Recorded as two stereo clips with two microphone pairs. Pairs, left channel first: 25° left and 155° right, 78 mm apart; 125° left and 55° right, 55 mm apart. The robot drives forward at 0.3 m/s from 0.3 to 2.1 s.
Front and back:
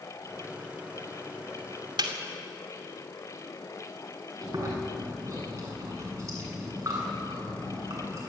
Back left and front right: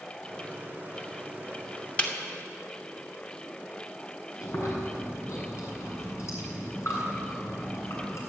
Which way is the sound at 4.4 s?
155° left.